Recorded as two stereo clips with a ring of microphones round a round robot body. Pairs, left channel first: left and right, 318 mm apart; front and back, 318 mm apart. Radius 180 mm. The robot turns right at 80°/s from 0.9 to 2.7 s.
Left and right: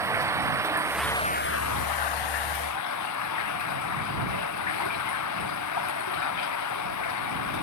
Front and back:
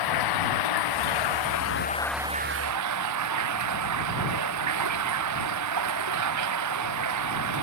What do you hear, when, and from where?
0.0 s running water: 10° right; by 7.6 s 135° left